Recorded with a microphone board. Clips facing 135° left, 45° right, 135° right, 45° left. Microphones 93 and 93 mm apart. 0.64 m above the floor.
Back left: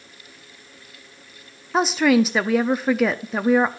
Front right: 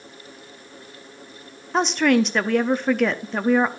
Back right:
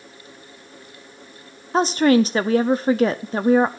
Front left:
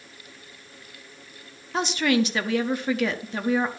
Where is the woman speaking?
140° right, 0.6 m.